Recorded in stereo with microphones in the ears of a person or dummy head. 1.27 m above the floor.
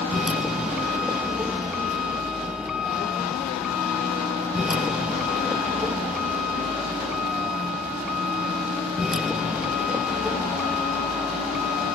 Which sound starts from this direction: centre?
A vehicle, at 0.0 s.